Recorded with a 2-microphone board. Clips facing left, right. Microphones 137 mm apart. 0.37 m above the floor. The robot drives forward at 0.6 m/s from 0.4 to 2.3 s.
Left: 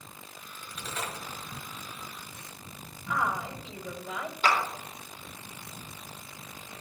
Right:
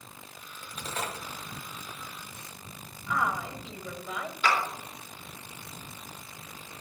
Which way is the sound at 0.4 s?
45° right (ahead or behind).